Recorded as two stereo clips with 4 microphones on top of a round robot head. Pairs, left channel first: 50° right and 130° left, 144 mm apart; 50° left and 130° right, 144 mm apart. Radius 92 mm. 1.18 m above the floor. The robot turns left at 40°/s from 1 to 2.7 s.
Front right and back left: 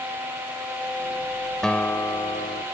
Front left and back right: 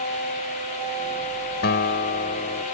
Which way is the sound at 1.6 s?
40° left.